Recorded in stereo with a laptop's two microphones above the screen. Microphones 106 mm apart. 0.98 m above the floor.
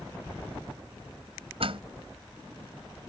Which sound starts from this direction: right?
A door slam, at 1.6 s.